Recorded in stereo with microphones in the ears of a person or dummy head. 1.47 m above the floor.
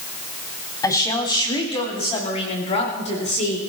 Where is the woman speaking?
20° left (ahead or behind), 3 m; by 3.6 s 35° left (ahead or behind), 5 m.